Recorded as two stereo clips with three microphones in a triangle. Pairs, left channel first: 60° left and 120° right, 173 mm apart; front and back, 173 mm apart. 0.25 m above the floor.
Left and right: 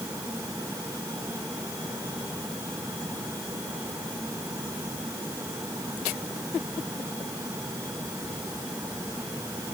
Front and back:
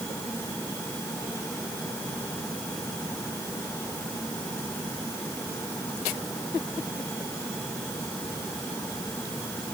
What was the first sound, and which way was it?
Only background noise.